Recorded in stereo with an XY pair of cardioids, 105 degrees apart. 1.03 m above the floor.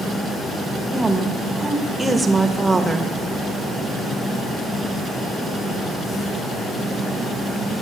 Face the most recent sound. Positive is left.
turn(degrees=-20)